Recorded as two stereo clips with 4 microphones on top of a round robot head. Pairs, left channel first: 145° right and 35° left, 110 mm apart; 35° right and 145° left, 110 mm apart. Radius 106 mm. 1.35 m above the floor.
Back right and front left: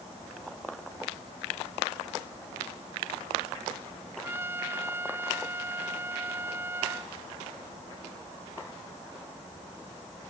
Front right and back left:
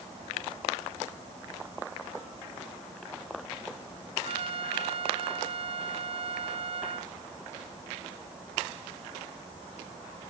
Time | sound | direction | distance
4.2 | a trumpet | 105° left | ?